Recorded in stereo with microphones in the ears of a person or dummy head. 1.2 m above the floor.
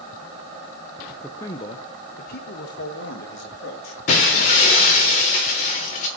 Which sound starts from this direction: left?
Breaking glass, at 4.1 s.